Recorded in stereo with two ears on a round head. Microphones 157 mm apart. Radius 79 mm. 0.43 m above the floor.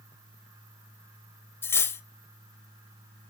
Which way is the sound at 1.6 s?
15° left (ahead or behind).